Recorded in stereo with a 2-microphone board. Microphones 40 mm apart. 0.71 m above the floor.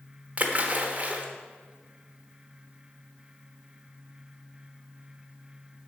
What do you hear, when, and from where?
0.4 s a splash: 35° right (ahead or behind), 1.0 m